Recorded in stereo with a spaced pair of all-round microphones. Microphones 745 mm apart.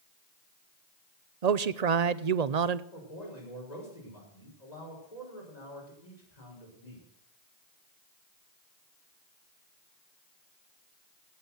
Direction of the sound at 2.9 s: 60° left (ahead or behind).